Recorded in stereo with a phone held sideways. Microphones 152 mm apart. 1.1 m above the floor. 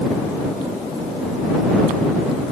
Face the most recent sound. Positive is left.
No sound to turn to.